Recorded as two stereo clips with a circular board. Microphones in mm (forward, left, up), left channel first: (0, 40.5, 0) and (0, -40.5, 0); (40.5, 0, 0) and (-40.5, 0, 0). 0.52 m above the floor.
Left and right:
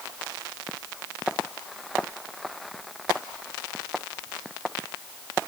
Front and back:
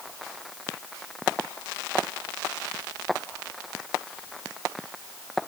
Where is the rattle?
No rattle in this recording.